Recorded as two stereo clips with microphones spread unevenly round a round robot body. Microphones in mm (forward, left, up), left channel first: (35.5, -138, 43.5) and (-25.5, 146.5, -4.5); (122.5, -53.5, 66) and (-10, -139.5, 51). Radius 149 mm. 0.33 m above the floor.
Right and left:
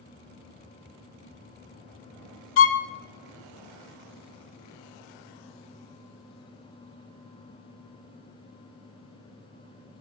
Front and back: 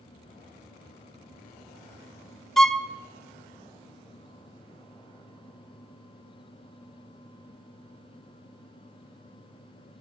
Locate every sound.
2.6 s a violin: 65° right, 0.7 m